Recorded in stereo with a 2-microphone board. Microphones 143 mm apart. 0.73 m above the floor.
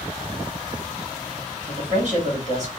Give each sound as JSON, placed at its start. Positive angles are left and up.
{"t": 1.7, "sound": "a man speaking", "side_deg": -50, "distance_m": 1.5}